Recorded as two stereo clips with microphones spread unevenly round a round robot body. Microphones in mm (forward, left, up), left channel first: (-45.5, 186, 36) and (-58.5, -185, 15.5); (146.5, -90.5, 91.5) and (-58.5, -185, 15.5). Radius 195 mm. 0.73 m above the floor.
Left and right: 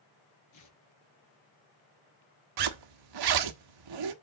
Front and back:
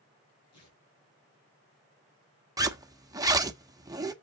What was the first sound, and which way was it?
Tearing paper, 40° left.